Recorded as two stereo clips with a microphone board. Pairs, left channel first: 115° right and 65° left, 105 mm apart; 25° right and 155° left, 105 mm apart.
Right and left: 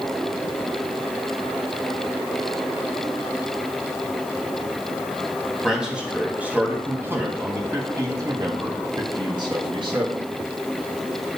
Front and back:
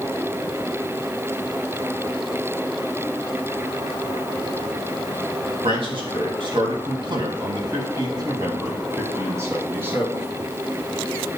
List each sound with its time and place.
5.6 s a man speaking: 150° left, 3.5 m; by 10.3 s 90° left, 4 m